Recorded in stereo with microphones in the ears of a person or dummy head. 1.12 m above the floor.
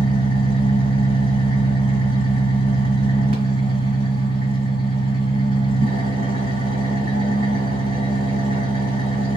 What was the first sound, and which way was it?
An engine running, 40° right (ahead or behind).